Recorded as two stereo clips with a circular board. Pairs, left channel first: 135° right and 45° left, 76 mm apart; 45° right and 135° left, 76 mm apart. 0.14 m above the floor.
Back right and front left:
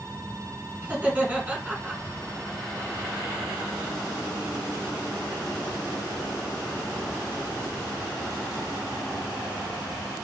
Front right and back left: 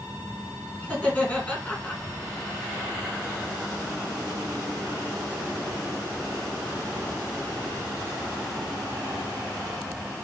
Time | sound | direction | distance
0.8 | laughter | straight ahead | 1.8 m